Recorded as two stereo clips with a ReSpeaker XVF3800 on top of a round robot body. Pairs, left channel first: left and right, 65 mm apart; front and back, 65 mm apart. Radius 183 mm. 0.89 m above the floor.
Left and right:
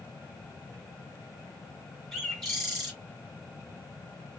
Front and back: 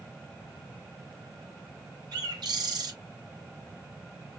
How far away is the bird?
About 2 m.